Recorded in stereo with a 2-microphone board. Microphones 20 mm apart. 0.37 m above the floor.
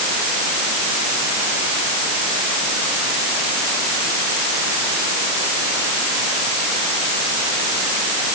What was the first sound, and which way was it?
Only background noise.